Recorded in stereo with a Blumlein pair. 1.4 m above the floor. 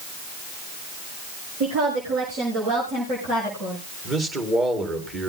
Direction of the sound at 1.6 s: 50° right.